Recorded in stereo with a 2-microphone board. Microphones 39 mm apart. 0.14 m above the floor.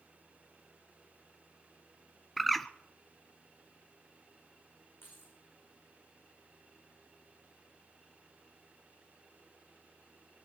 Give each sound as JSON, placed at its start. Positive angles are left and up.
{"t": 2.4, "sound": "a bird", "side_deg": 5, "distance_m": 0.6}
{"t": 5.0, "sound": "keys jangling", "side_deg": 70, "distance_m": 6.0}